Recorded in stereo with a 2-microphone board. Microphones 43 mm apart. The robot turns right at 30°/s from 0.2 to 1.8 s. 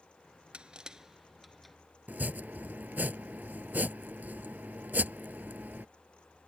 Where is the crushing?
25° right (ahead or behind); by 1.8 s 5° left (ahead or behind).